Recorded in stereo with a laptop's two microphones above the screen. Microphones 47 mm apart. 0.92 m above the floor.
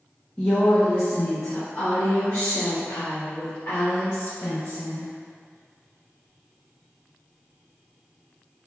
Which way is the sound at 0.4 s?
20° left (ahead or behind).